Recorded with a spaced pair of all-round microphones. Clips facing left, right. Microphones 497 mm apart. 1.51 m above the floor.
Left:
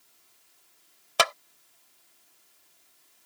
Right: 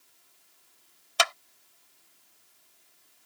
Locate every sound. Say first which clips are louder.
1.2 s a clap: left 4 dB; 70° left (ahead or behind)